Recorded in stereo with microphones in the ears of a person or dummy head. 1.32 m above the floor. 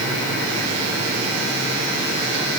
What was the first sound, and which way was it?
Only background noise.